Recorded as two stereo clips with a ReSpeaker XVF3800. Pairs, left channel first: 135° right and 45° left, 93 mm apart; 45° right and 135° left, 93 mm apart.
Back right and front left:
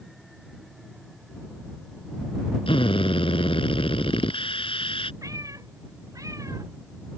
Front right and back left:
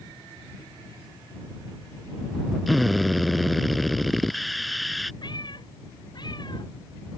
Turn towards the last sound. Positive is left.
turn(degrees=-10)